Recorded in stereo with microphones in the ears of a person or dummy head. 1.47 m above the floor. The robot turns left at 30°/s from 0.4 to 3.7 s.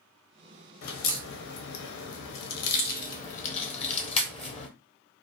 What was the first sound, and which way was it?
A crack, 50° left (ahead or behind).